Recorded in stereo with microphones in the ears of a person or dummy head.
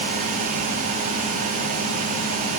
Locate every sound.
Only background noise.